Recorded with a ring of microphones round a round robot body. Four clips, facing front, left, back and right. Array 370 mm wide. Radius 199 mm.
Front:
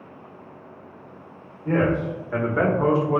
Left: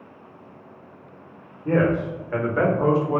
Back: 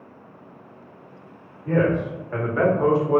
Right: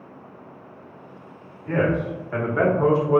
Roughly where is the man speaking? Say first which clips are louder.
Left 2 dB, back 1 dB; ahead left.